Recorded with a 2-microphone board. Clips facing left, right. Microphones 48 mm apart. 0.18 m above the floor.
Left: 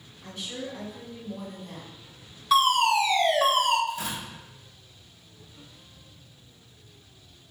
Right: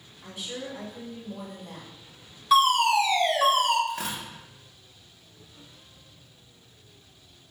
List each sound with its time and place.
0.2 s a woman speaking: 10° right (ahead or behind), 1.3 m
2.5 s a fire alarm: 10° right (ahead or behind), 2.0 m
3.9 s tearing paper: 70° right (ahead or behind), 1.0 m